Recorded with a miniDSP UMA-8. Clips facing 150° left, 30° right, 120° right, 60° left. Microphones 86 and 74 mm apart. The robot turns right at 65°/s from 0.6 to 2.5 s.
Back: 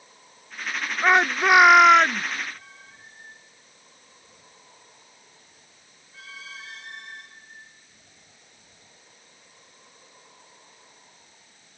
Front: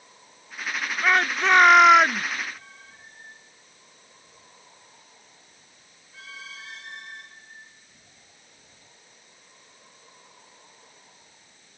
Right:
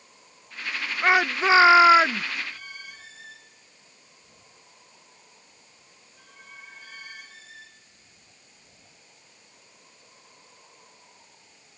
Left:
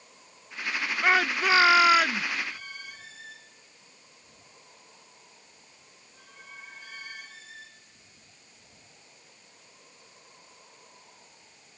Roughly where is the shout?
Behind.